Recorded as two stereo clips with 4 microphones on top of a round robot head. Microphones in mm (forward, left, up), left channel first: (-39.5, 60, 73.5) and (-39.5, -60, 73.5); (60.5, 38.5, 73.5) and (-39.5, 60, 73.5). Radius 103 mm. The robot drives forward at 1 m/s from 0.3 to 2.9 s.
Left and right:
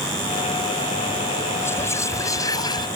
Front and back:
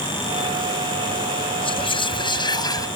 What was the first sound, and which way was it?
Whispering, 20° left.